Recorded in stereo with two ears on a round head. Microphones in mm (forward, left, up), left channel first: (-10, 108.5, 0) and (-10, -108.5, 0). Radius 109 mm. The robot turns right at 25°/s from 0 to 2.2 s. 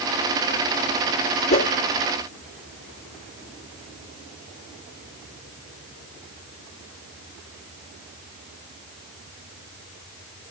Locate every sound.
1.5 s a whoosh: 25° left (ahead or behind), 1.5 m; by 1.7 s 30° left (ahead or behind), 1.5 m